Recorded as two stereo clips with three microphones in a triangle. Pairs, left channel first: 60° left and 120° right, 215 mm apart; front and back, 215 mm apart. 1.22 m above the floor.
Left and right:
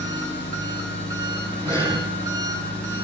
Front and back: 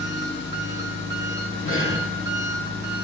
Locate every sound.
0.0 s an engine running: 30° left, 4 m
1.6 s breathing: 15° right, 5 m